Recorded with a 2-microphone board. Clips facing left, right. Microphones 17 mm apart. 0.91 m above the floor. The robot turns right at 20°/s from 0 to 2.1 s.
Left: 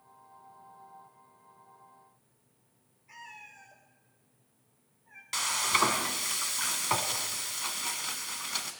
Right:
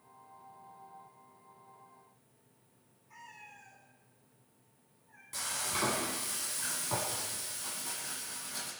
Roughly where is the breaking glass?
I don't hear breaking glass.